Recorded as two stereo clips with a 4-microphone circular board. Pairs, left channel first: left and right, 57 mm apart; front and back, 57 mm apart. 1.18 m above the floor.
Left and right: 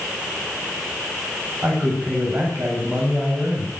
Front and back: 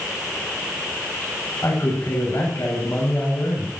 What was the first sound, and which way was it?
A man speaking, 40° right.